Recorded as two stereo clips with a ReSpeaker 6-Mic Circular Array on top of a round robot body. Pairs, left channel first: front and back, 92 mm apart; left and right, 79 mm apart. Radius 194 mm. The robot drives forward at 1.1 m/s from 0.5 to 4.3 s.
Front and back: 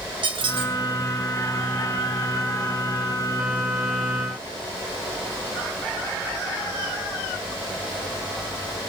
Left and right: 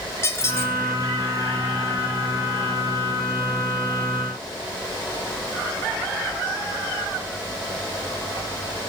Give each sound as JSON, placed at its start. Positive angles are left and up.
{"t": 0.2, "sound": "a squeak", "azimuth_deg": 150, "distance_m": 3.5}